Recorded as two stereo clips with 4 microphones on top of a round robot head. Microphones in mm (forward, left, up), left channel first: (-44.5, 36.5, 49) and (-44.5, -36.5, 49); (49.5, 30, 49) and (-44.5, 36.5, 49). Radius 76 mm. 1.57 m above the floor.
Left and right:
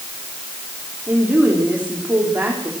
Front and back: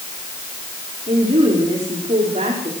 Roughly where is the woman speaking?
Behind right.